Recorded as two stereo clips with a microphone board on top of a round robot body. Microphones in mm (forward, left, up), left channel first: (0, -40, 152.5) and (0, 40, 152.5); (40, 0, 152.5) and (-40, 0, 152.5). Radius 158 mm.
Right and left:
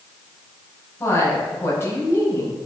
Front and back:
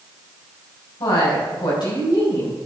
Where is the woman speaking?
30° right, 5 m.